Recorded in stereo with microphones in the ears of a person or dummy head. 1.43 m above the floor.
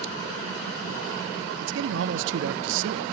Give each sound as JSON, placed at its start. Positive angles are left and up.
{"t": 1.6, "sound": "a man speaking", "side_deg": -70, "distance_m": 0.8}